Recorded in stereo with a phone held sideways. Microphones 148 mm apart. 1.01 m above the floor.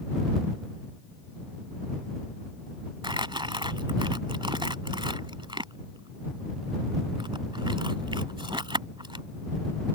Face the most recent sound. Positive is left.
turn(degrees=-35)  # may be behind; listen again after turning